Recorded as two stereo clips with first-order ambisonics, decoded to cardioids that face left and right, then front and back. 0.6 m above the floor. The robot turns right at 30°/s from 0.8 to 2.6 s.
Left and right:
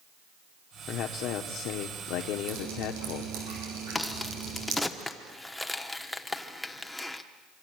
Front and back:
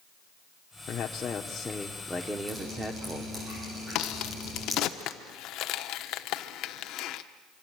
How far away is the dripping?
About 8 m.